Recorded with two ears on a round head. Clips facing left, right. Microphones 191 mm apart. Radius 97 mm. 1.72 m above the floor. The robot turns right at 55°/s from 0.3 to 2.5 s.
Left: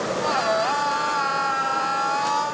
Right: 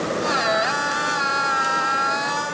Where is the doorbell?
No doorbell in this recording.